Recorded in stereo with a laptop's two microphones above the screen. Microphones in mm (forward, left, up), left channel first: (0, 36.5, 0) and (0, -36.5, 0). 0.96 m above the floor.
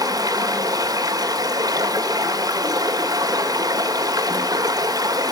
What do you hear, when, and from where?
0.0 s running water: 60° right (ahead or behind), 1.7 m